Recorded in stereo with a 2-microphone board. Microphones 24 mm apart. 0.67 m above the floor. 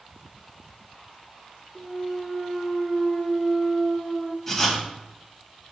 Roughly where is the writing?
Centre.